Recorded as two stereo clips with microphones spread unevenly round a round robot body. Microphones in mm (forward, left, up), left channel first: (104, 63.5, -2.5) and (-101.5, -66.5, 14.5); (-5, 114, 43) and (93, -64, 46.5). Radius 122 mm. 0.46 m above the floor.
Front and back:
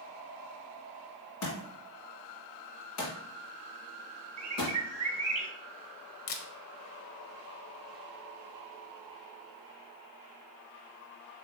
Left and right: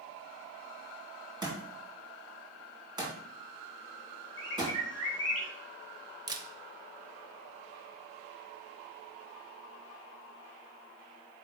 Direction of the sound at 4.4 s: 170° left.